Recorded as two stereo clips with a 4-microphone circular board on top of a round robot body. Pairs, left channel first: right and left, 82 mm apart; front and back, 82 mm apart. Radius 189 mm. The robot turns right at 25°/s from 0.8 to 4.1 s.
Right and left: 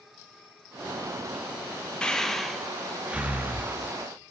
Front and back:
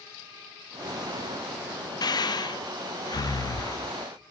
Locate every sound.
2.0 s breathing: 10° right, 0.6 m; by 3.8 s 30° left, 0.6 m